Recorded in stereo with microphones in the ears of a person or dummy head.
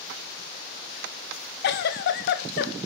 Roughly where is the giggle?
Left.